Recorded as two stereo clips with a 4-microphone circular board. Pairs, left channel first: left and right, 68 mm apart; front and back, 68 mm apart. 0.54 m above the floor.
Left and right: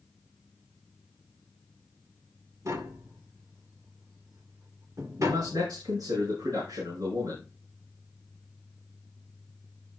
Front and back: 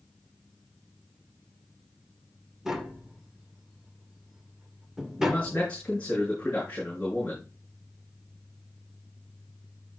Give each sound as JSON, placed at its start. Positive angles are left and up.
{"t": 2.6, "sound": "tapping", "azimuth_deg": -100, "distance_m": 2.0}
{"t": 5.2, "sound": "a man speaking", "azimuth_deg": -80, "distance_m": 7.5}